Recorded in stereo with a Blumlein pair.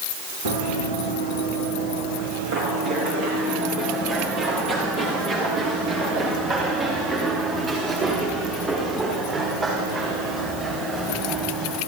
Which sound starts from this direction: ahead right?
Running footsteps, at 0.5 s.